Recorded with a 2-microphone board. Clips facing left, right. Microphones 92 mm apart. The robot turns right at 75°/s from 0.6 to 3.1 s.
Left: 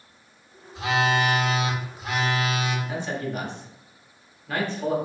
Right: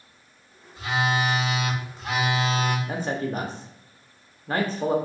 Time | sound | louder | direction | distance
0.8 | a phone buzzing | left 2 dB | 80° left | 0.6 m
2.9 | a man speaking | right 2 dB | 40° right (ahead or behind) | 0.7 m